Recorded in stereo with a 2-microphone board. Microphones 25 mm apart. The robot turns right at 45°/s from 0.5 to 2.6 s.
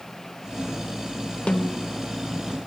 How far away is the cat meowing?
I don't hear a cat meowing.